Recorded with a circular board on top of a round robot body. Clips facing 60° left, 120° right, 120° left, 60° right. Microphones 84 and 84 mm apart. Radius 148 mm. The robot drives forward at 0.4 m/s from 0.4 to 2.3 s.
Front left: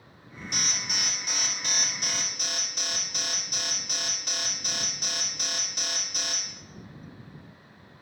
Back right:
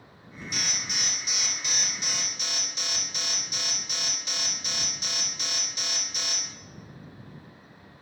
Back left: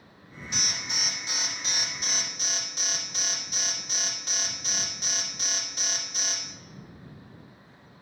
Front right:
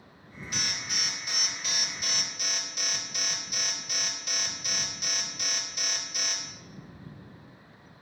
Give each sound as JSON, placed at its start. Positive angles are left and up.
{"t": 0.5, "sound": "an alarm", "azimuth_deg": 60, "distance_m": 2.5}